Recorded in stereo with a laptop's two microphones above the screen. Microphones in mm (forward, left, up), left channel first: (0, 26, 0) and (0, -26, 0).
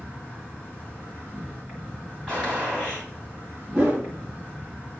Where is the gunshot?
15° left (ahead or behind), 2.5 m.